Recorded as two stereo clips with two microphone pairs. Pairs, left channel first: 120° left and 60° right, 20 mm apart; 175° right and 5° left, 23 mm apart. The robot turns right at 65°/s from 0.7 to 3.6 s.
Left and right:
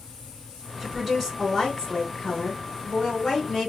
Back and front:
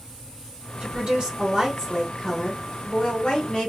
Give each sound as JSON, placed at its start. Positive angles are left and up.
{"t": 0.8, "sound": "a woman speaking", "azimuth_deg": 5, "distance_m": 1.5}